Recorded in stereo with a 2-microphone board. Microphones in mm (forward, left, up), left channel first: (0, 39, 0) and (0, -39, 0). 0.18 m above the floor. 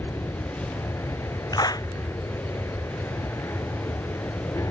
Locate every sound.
0.0 s an aircraft: 40° left (ahead or behind)
1.5 s a clap: 55° left (ahead or behind)